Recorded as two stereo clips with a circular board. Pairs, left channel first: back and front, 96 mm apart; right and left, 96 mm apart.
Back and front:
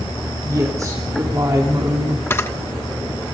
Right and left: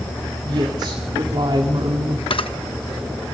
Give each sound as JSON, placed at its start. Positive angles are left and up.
{"t": 0.4, "sound": "a woman speaking", "azimuth_deg": 55, "distance_m": 3.0}
{"t": 2.3, "sound": "a camera shutter", "azimuth_deg": -115, "distance_m": 1.1}